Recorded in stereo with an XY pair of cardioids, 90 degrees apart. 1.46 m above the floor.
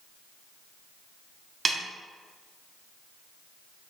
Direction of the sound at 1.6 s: 30° right.